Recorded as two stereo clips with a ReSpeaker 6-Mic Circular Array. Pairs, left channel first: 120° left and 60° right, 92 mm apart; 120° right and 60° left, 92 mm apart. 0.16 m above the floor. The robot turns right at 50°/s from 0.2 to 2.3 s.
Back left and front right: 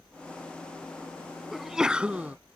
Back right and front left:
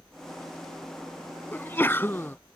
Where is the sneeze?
145° right; by 2.4 s 110° right.